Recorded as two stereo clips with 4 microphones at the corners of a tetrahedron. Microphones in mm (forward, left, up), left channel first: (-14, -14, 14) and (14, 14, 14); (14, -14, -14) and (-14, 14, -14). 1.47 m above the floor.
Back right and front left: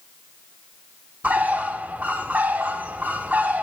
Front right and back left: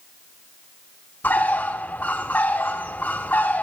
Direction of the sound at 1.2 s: Straight ahead.